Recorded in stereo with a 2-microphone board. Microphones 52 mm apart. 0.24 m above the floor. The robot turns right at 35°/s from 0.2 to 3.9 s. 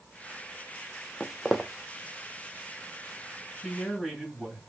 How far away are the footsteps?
About 0.6 m.